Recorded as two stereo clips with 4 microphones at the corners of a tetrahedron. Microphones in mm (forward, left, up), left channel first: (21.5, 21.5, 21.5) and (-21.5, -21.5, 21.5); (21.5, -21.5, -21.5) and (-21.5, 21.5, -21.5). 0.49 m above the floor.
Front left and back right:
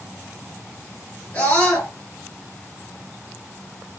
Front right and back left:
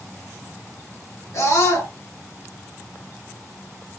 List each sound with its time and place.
1.3 s a scream: 15° right, 3 m